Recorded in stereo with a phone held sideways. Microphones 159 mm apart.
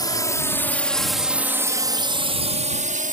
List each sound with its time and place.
0.0 s a drone: 25° left (ahead or behind); by 3.1 s 55° right (ahead or behind)